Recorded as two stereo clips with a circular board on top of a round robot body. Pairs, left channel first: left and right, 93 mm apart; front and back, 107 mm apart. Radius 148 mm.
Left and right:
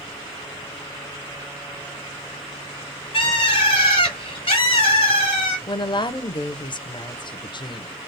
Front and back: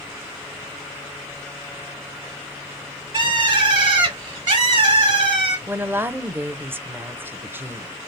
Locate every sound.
3.1 s a bird: 130° left, 1.5 m
5.7 s a woman speaking: 110° left, 0.7 m